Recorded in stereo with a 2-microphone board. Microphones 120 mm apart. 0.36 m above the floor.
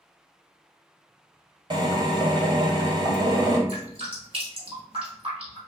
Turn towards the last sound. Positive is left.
turn(degrees=-50)  # may be behind; listen again after turning